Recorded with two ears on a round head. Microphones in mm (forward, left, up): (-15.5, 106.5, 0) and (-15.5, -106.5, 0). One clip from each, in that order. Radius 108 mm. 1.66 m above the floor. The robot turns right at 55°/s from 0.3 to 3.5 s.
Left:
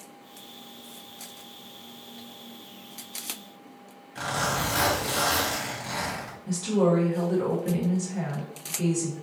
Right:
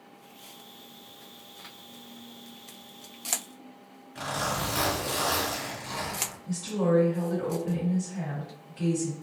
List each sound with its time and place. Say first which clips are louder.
4.2 s a zipper: left 3 dB; 5° left (ahead or behind), 1.2 m
6.5 s a woman speaking: left 4 dB; 30° left (ahead or behind), 1.4 m